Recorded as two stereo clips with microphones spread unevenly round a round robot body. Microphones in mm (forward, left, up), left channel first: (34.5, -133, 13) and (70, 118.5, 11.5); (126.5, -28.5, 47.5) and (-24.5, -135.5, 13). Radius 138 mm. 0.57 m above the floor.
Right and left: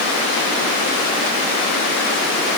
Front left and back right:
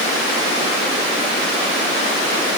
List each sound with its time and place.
Only background noise.